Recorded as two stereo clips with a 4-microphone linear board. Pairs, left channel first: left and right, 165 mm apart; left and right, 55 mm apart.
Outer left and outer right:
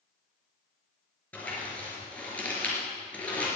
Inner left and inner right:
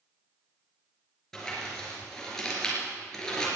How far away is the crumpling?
About 5 m.